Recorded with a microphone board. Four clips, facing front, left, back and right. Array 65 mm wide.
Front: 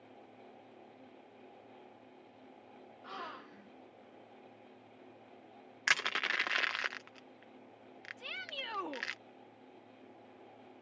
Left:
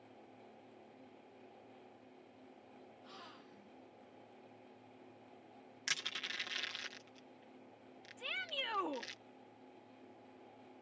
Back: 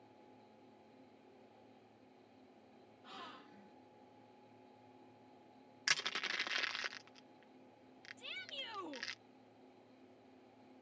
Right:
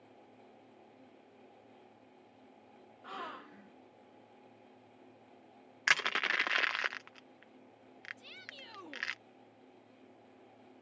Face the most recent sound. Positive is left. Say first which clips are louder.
# left 8 dB, front 6 dB
turn(degrees=55)